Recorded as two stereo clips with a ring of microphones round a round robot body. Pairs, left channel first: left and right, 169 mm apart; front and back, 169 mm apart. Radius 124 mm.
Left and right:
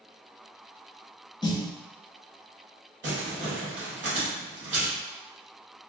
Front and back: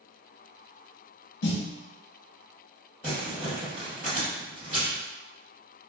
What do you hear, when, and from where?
1.4 s a snare drum: 20° left, 0.6 m
3.0 s crumpling: 100° right, 1.6 m